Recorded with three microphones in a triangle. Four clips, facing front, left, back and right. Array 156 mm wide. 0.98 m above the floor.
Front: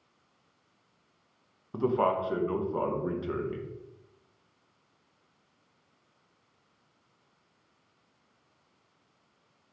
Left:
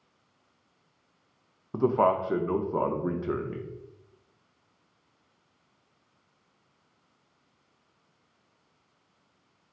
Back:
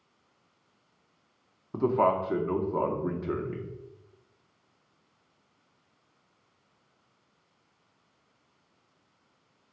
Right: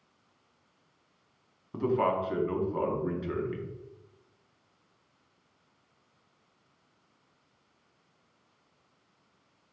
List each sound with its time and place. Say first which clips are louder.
1.7 s a man speaking: left 4 dB, back 2 dB; 110° left, 0.6 m